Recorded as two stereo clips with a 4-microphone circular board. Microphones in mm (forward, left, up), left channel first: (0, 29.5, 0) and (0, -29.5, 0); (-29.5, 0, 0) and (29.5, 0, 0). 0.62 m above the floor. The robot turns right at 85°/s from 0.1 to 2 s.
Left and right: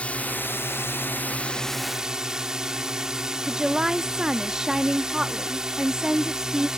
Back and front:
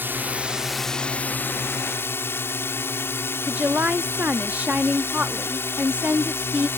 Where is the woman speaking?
25° right.